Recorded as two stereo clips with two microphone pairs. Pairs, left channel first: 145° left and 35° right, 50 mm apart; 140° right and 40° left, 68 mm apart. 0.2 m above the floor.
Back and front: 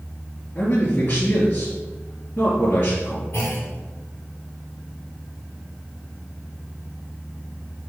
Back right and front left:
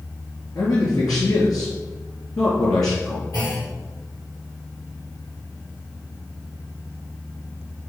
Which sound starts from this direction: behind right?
A man speaking, at 0.6 s.